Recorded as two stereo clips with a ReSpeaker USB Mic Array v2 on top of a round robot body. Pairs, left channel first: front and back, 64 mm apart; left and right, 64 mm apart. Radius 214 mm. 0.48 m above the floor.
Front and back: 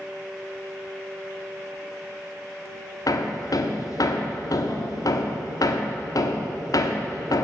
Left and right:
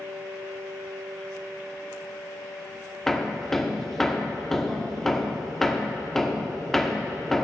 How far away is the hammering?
About 1.2 m.